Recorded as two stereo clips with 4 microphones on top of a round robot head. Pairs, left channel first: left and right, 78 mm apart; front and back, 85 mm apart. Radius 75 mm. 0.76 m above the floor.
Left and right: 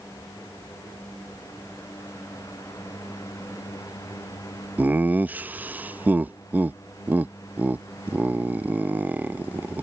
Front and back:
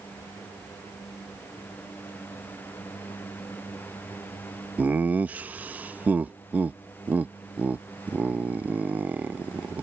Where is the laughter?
125° right.